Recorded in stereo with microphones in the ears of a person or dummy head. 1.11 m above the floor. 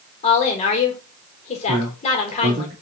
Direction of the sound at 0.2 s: 35° left (ahead or behind).